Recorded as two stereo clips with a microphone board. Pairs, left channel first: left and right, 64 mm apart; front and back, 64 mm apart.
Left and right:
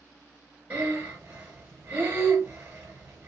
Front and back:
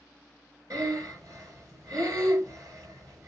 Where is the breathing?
155° right, 3 m.